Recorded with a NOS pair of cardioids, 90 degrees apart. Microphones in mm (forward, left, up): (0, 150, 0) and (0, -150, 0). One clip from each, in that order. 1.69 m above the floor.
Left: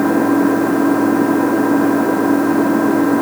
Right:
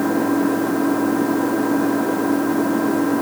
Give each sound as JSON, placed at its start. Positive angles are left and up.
{"t": 0.0, "sound": "an engine running", "azimuth_deg": 30}